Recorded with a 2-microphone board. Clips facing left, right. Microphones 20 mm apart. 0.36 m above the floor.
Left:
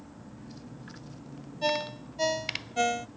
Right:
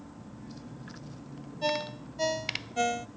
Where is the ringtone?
15° left (ahead or behind).